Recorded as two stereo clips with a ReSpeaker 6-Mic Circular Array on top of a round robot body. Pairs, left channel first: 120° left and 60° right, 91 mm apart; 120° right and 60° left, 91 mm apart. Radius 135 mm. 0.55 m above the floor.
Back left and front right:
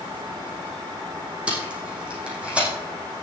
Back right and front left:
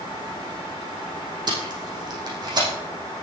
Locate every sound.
1.5 s tape being pulled: 20° left, 6.5 m